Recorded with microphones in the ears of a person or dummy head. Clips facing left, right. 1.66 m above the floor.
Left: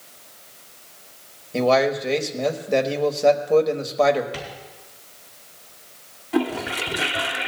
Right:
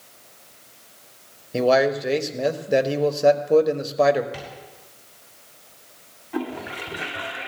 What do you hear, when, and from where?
1.5 s a man speaking: 20° right (ahead or behind), 1.1 m
4.3 s tapping: 5° right (ahead or behind), 3.5 m
6.3 s a toilet flushing: 45° left (ahead or behind), 1.0 m